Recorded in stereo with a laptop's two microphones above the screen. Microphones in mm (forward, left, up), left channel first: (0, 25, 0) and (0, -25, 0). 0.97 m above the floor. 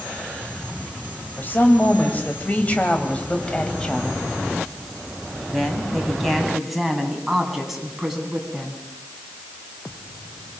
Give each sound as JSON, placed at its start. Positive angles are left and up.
{"t": 1.4, "sound": "a woman speaking", "side_deg": 40, "distance_m": 4.0}